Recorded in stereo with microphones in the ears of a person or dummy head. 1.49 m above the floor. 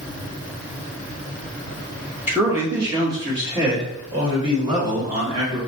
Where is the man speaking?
10° right (ahead or behind), 1.2 m; by 5.6 s 30° right (ahead or behind), 3 m.